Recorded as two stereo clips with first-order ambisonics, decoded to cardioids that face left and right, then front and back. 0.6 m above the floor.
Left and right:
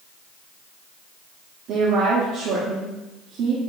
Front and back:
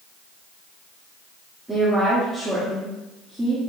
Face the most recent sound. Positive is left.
turn(degrees=-95)